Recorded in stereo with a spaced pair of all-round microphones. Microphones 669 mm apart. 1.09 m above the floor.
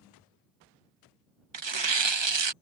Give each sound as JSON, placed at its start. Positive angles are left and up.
{"t": 1.5, "sound": "tearing paper", "side_deg": -40}